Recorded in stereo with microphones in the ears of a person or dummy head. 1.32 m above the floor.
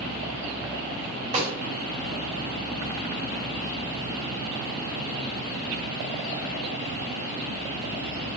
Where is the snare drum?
35° right (ahead or behind), 4 m.